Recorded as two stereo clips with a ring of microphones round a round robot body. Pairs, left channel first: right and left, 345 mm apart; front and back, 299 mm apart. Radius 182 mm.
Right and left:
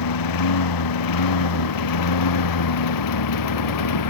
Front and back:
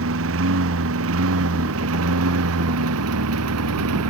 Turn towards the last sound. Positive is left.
turn(degrees=-130)